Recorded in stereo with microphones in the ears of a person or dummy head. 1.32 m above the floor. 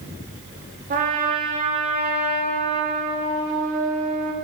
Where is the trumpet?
35° right (ahead or behind), 1.9 m.